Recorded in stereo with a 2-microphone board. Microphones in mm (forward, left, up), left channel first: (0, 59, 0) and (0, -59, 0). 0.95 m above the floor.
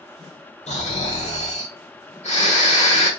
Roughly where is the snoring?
Left.